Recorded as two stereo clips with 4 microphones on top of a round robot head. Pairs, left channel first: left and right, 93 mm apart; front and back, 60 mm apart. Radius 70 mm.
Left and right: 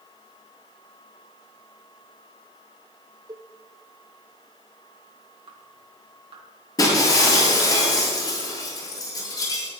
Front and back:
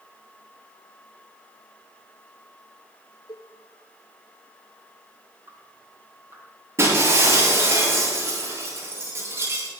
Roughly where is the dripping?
Behind right.